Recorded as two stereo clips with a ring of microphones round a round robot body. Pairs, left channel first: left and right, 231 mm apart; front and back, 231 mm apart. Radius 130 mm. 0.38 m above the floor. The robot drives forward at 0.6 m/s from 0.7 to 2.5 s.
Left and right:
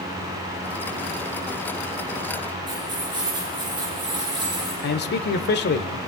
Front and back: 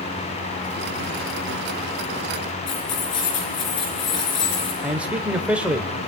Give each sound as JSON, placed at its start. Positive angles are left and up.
{"t": 2.7, "sound": "keys jangling", "azimuth_deg": -15, "distance_m": 4.0}
{"t": 4.8, "sound": "a man speaking", "azimuth_deg": 95, "distance_m": 1.1}